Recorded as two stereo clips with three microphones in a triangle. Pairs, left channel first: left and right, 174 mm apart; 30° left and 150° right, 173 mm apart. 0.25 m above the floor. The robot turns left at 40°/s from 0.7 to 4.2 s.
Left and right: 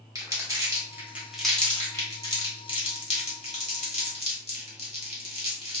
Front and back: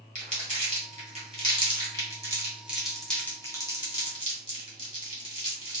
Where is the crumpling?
150° right, 1.5 m; by 5.8 s 70° left, 1.5 m.